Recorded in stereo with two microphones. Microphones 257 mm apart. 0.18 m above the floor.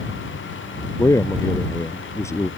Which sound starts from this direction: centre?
A man speaking, at 1.0 s.